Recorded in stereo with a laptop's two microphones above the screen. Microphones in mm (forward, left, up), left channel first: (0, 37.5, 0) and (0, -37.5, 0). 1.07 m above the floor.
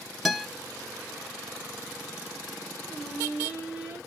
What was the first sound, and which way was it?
A guitar, centre (ahead or behind).